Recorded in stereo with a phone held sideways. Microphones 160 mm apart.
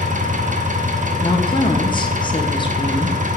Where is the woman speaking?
30° left (ahead or behind), 0.9 m.